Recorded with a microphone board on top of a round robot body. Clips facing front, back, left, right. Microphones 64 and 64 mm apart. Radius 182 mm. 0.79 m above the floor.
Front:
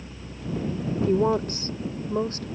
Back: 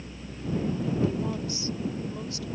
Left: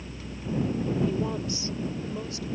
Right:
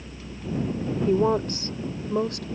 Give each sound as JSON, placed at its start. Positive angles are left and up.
{"t": 1.1, "sound": "a woman speaking", "azimuth_deg": -45}